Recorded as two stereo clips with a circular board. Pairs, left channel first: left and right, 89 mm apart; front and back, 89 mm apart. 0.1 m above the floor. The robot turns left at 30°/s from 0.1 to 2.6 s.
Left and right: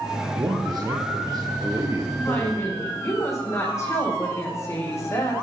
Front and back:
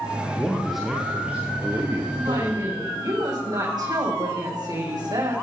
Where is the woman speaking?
160° left, 5.5 m; by 5.3 s 145° left, 5.5 m.